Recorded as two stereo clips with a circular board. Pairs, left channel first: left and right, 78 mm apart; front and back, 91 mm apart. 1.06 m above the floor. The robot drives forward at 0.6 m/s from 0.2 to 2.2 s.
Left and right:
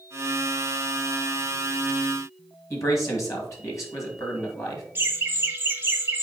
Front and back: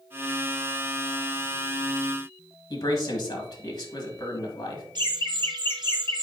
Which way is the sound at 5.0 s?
150° right.